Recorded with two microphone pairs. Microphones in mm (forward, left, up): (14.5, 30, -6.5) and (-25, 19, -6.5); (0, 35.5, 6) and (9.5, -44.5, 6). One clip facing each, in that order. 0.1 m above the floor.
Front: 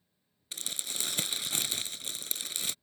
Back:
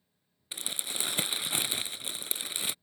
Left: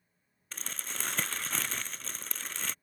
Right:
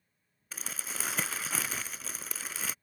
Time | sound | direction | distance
0.5 | crumpling | 150° right | ?